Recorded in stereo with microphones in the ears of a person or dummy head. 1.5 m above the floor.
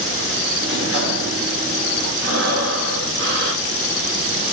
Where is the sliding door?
60° right (ahead or behind), 1.9 m.